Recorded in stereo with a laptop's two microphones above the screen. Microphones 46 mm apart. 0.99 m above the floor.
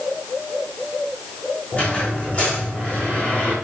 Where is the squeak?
30° left (ahead or behind), 5 m.